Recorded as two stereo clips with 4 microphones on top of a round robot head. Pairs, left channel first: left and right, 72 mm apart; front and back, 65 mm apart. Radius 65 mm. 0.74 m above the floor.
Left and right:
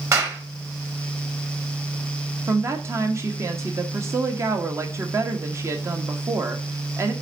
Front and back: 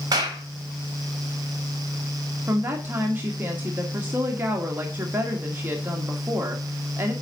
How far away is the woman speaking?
About 1.3 m.